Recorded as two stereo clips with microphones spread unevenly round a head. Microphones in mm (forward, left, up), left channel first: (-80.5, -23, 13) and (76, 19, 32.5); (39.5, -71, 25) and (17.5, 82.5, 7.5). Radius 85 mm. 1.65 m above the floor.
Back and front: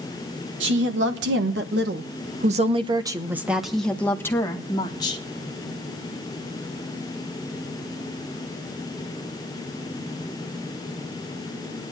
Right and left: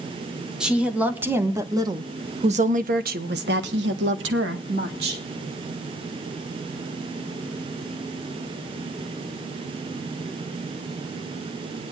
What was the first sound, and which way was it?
A woman speaking, 10° left.